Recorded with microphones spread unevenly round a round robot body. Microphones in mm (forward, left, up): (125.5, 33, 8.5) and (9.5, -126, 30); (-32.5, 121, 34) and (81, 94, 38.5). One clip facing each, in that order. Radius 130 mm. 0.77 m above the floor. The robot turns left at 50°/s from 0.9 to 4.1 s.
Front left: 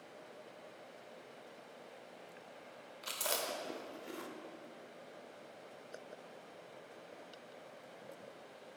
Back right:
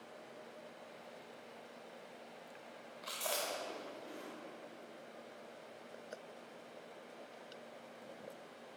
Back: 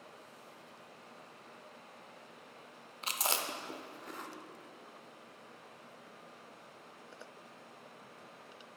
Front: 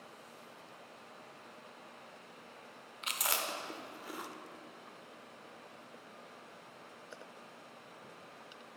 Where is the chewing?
120° left, 0.6 m; by 4.3 s 65° left, 0.6 m.